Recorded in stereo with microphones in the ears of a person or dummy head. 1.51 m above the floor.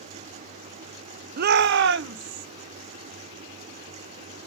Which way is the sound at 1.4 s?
50° right (ahead or behind).